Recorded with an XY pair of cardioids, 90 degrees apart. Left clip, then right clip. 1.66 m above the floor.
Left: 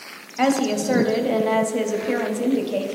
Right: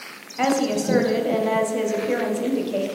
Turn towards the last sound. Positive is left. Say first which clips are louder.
# left 1 dB
turn(degrees=20)